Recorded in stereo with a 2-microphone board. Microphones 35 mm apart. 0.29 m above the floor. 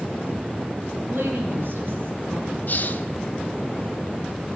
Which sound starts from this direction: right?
A woman speaking, at 1.1 s.